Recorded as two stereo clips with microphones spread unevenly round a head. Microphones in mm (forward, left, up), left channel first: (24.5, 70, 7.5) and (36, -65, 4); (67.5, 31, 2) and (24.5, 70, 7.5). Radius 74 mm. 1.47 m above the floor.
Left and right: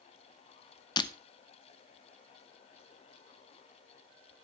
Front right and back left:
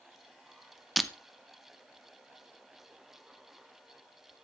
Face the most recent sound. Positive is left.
turn(degrees=55)